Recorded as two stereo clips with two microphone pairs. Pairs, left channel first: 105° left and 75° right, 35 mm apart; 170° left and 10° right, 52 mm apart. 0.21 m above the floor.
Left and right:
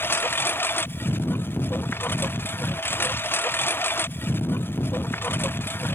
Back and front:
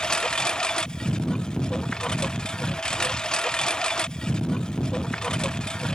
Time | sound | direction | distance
0.0 | a lawn mower | 95° left | ?